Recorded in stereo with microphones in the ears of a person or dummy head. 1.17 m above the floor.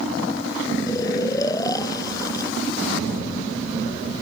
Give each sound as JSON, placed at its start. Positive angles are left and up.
{"t": 0.9, "sound": "snoring", "side_deg": 20}